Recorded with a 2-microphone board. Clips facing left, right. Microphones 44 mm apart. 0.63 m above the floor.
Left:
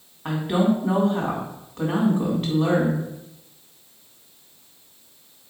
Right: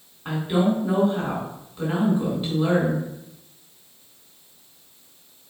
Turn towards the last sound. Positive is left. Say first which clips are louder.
# left 1 dB
turn(degrees=65)  # may be behind; listen again after turning